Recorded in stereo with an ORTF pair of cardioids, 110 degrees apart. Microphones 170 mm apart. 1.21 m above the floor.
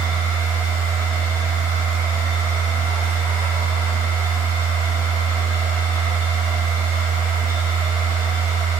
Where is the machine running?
20° right, 1.3 m.